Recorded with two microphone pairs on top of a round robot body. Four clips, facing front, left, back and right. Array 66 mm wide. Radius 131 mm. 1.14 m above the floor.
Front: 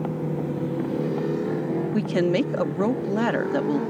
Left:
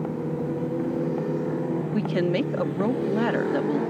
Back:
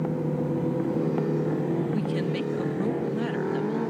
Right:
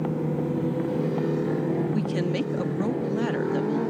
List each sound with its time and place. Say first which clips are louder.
1.9 s a woman speaking: left 2 dB, front 6 dB; 25° left